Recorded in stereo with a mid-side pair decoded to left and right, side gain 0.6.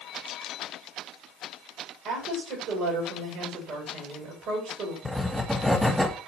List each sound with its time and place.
2.0 s a woman speaking: 55° right, 7.5 m
5.0 s writing: 5° right, 1.5 m